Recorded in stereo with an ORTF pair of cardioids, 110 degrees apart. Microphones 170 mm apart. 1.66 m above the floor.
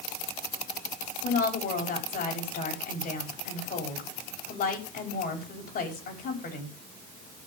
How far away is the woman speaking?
About 5.5 m.